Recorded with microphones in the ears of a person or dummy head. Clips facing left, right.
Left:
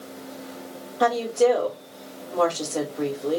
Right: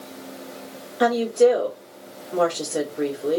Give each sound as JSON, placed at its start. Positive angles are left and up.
{"t": 1.0, "sound": "a woman speaking", "side_deg": -20, "distance_m": 0.9}